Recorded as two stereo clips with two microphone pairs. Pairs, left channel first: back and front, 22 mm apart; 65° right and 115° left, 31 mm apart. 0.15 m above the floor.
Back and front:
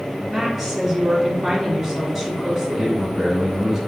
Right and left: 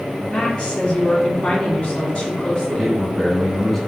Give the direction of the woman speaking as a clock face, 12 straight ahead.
2 o'clock.